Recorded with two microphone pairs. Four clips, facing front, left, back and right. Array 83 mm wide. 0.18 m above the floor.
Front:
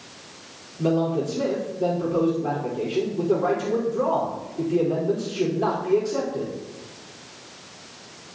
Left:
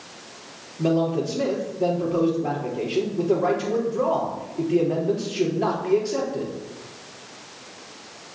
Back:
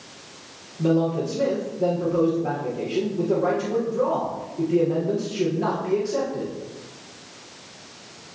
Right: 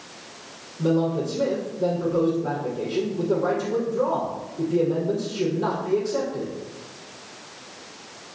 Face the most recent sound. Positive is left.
turn(degrees=100)